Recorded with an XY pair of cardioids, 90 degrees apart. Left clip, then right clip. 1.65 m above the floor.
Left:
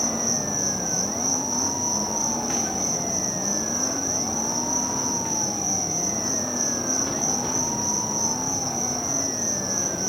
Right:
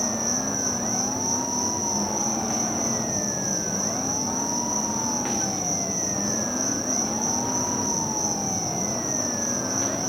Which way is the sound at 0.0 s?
30° left.